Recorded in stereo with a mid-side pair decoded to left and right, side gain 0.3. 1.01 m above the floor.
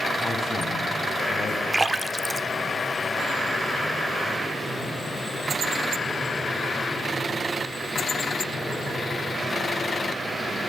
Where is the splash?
30° right, 1.2 m.